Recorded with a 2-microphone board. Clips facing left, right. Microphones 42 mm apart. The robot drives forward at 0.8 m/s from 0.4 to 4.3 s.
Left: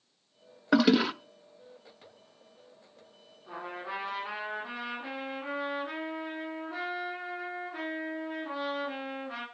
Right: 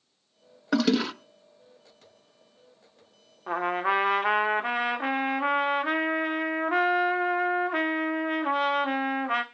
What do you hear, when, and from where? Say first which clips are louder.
0.7 s a toilet flushing: left 1 dB; 15° left (ahead or behind), 0.5 m; by 1.1 s 10° left (ahead or behind), 0.7 m
3.5 s a trumpet: right 13 dB; 65° right (ahead or behind), 1.6 m; by 9.4 s 70° right (ahead or behind), 1.6 m